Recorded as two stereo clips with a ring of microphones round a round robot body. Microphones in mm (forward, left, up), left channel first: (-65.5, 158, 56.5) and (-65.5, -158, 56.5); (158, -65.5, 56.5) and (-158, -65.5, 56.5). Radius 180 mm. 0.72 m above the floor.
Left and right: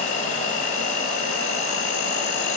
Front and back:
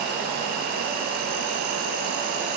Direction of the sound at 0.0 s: 140° left.